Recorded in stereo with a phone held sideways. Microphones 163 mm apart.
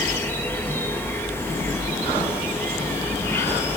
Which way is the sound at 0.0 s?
15° left (ahead or behind).